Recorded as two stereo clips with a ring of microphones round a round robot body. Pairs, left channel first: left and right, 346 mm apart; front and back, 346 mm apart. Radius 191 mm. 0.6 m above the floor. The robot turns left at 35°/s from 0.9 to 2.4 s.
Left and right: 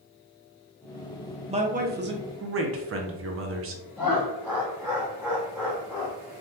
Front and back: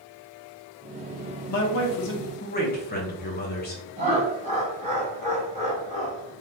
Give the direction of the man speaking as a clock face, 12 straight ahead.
1 o'clock.